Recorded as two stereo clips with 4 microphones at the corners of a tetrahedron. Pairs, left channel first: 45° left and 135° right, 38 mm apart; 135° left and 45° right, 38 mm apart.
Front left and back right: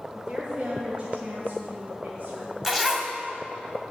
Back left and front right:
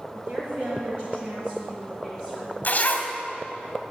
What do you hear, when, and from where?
0.1 s a woman speaking: 60° right, 2 m; by 2.5 s 115° right, 2.5 m
2.6 s a zipper: 140° left, 1.8 m